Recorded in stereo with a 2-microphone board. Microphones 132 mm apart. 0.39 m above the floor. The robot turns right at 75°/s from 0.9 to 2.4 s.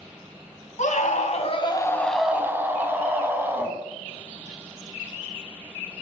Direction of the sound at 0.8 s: 85° left.